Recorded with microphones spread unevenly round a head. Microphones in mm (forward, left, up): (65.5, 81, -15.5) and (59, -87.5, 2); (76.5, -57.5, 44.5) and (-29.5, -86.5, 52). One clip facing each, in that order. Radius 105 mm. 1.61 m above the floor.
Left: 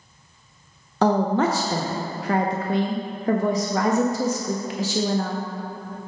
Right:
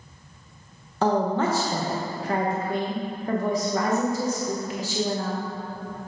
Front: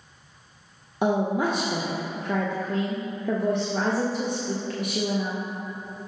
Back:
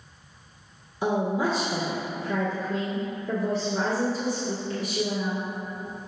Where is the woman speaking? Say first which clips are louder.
Left 3 dB, front 2 dB; 60° left, 0.6 m.